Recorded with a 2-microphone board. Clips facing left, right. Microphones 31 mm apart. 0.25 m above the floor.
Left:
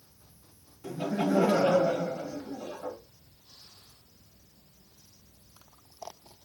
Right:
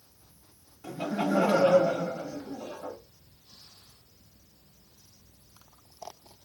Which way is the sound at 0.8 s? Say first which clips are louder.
Even; 15° right (ahead or behind).